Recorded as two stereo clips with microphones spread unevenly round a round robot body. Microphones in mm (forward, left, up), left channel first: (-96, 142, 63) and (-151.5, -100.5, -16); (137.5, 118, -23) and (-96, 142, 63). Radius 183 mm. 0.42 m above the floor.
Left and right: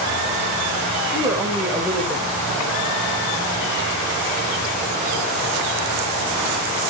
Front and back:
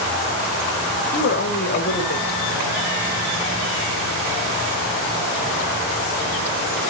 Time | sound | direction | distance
1.1 | a woman speaking | 25° right | 1.6 m